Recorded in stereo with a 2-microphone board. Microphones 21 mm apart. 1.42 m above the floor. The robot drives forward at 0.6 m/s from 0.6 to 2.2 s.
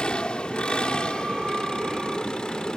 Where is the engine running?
50° left (ahead or behind); by 2.8 s 40° left (ahead or behind).